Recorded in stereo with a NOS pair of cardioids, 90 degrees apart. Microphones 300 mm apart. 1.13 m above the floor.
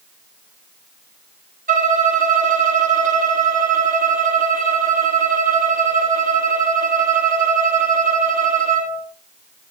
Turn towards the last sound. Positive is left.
turn(degrees=-30)